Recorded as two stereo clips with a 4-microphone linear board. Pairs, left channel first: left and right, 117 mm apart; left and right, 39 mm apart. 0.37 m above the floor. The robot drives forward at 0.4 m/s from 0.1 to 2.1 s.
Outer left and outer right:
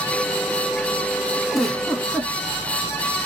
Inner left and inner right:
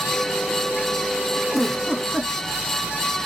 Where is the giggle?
Centre (ahead or behind), 0.6 m.